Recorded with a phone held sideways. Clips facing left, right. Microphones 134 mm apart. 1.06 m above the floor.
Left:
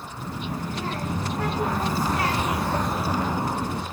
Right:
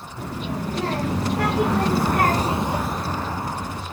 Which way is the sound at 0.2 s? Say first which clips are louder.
Right 3 dB; 75° right (ahead or behind).